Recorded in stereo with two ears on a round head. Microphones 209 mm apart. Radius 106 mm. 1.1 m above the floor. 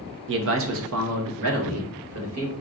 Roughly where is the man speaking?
Right.